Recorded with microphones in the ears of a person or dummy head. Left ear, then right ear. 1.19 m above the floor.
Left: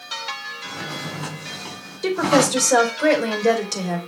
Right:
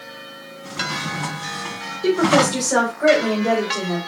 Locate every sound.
0.6 s a drawer: 5° right (ahead or behind), 3 m
2.0 s a woman speaking: 80° left, 4 m